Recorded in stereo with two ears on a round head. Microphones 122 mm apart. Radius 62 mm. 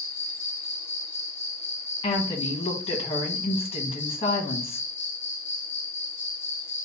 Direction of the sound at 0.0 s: 15° left (ahead or behind).